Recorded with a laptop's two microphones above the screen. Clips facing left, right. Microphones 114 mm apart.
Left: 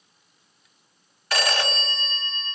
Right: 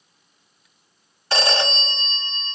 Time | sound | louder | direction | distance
1.3 | a phone ringing | right 3 dB | 25° right (ahead or behind) | 0.7 m